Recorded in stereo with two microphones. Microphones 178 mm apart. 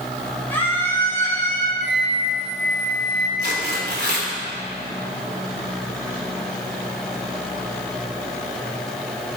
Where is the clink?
No clink in this recording.